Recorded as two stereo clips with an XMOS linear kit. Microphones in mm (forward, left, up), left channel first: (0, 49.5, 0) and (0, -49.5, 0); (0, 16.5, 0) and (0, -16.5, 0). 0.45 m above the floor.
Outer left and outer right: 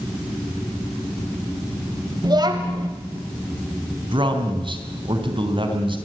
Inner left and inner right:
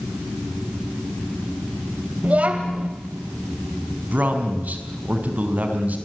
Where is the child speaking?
45° right (ahead or behind), 1.3 m.